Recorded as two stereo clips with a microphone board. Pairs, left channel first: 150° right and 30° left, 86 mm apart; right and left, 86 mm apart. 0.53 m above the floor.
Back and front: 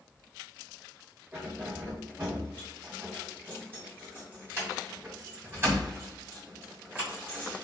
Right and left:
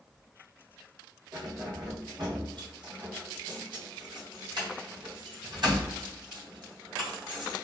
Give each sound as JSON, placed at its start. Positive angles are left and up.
{"t": 1.3, "sound": "keys jangling", "azimuth_deg": 95, "distance_m": 1.3}